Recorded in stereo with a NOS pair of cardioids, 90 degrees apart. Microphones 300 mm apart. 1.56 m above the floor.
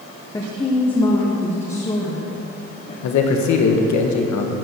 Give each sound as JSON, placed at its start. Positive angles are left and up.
{"t": 0.3, "sound": "a woman speaking", "azimuth_deg": 10, "distance_m": 1.4}
{"t": 3.0, "sound": "a man speaking", "azimuth_deg": 70, "distance_m": 1.6}